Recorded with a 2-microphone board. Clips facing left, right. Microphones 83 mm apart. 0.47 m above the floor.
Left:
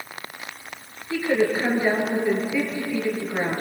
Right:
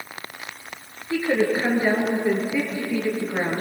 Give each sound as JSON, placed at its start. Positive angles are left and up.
{"t": 1.1, "sound": "a woman speaking", "side_deg": -20, "distance_m": 8.0}